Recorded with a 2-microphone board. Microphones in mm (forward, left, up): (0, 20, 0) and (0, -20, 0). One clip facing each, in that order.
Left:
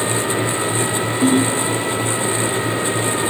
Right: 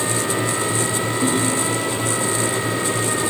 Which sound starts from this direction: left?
A ringtone, at 1.2 s.